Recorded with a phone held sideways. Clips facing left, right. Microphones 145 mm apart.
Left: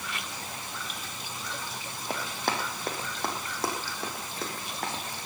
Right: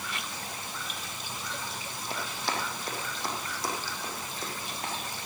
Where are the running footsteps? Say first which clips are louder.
Left 3 dB; 55° left (ahead or behind), 3.5 m; by 5.0 s 70° left (ahead or behind), 4.5 m.